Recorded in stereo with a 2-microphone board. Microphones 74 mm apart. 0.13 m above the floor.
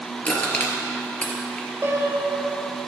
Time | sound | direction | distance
0.2 | crushing | 20° left (ahead or behind) | 3 m
1.8 | a piano | 30° right (ahead or behind) | 2.0 m